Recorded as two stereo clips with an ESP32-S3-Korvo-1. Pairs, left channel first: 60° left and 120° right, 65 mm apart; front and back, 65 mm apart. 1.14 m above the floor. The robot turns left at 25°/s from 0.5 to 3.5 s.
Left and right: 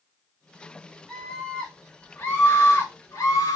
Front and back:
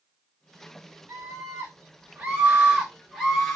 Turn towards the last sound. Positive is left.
turn(degrees=75)